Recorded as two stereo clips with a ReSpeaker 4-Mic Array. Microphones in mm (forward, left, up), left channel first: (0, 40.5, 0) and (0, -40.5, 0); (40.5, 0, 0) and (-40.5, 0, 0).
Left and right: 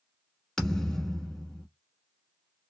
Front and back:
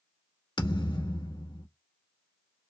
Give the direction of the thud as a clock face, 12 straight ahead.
12 o'clock.